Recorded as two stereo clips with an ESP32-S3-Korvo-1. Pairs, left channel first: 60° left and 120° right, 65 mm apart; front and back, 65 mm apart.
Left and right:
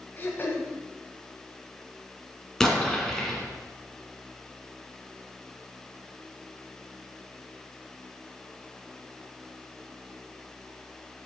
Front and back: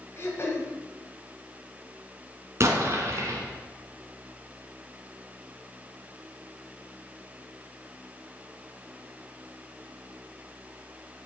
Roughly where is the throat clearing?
Ahead.